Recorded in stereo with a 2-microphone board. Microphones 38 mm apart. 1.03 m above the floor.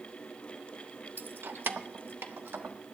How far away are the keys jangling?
About 0.5 m.